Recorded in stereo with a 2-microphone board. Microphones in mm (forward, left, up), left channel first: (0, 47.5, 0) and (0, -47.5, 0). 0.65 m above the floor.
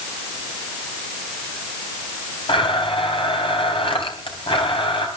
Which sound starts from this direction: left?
A blender, at 2.5 s.